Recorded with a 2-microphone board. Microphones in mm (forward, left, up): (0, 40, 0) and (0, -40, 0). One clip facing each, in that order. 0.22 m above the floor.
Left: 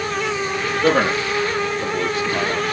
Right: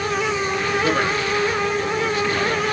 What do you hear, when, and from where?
0.8 s a man speaking: 70° left (ahead or behind), 6 m